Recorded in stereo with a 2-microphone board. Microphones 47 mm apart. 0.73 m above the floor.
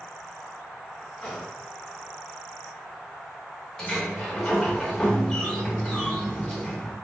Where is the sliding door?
15° left (ahead or behind), 0.8 m.